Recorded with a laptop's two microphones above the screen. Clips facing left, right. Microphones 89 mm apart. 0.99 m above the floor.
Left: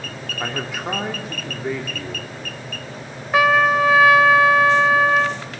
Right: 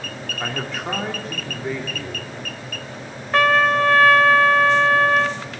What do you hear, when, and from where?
0.4 s a man speaking: 10° left (ahead or behind), 2.5 m
3.3 s a trumpet: 5° left (ahead or behind), 1.3 m